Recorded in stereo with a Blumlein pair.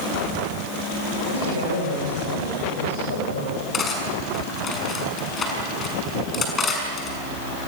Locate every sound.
1.3 s a woman speaking: 65° left, 7 m
3.7 s cutlery clinking: 20° left, 6.5 m